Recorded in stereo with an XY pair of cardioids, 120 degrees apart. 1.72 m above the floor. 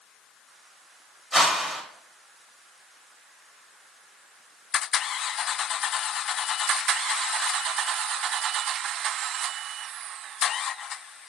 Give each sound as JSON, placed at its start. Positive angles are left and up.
{"t": 1.3, "sound": "a whoosh", "azimuth_deg": -5, "distance_m": 1.8}